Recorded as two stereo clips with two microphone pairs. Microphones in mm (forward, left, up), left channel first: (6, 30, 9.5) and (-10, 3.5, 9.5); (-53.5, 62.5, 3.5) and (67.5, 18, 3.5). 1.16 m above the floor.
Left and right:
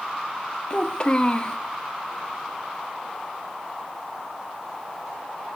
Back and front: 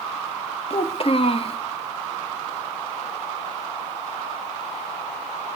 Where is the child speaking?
115° left, 1.6 m.